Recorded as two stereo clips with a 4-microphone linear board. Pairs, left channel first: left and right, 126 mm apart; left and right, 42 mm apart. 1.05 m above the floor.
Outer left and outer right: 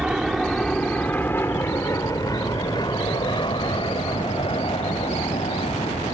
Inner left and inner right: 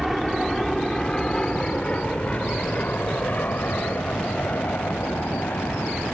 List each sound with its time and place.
0.0 s an aircraft: 5° right (ahead or behind); by 6.2 s 50° left (ahead or behind)